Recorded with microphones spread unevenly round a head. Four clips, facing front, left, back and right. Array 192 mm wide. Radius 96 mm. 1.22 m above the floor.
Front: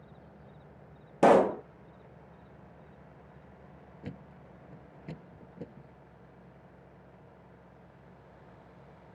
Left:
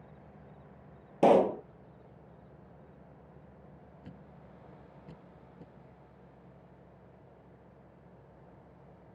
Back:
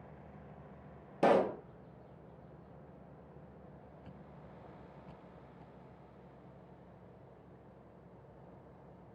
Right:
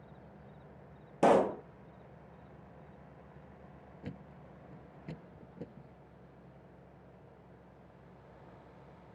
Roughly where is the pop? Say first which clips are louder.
Left 3 dB, front 7 dB; ahead left.